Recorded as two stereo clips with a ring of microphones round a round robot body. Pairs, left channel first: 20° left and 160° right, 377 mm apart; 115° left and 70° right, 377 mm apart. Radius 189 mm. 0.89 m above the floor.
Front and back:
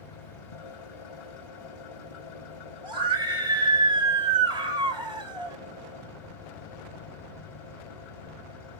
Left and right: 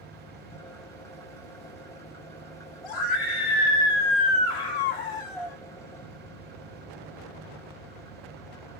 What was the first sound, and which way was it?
An engine running, 30° left.